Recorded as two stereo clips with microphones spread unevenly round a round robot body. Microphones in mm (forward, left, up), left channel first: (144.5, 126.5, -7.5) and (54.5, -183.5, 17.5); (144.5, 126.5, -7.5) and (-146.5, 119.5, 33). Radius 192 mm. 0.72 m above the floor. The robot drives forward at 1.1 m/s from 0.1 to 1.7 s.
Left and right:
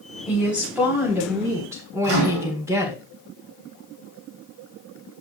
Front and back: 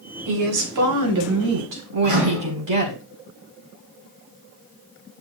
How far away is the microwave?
About 4 m.